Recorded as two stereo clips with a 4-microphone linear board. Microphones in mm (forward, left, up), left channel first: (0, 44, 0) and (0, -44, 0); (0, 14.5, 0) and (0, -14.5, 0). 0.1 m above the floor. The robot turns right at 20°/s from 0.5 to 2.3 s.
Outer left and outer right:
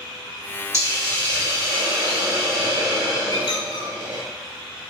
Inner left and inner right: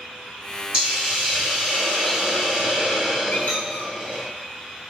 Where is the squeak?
55° left (ahead or behind), 0.7 m.